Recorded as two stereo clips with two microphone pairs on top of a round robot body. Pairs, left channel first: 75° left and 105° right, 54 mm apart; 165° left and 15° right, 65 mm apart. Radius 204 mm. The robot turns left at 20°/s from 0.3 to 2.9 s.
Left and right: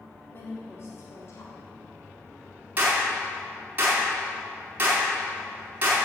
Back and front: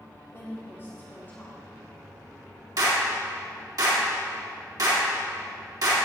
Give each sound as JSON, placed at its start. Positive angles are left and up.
{"t": 0.3, "sound": "a woman speaking", "azimuth_deg": 125, "distance_m": 3.0}
{"t": 2.8, "sound": "a clap", "azimuth_deg": -45, "distance_m": 4.5}